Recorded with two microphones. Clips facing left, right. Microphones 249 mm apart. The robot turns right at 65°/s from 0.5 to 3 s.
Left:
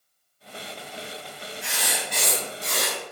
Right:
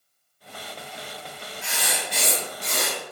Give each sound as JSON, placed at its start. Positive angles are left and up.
{"t": 1.6, "sound": "writing", "azimuth_deg": 55, "distance_m": 1.2}